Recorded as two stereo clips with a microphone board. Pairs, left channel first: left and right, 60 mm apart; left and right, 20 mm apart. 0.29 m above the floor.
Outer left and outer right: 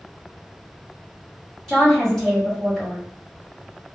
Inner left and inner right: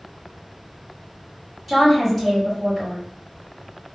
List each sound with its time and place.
1.7 s a woman speaking: 10° left (ahead or behind), 1.9 m